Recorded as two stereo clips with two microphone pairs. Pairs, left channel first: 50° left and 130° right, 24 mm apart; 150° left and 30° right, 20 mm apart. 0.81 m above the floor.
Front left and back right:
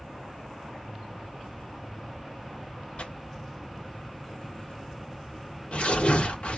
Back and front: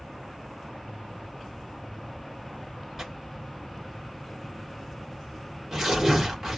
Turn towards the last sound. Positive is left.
turn(degrees=40)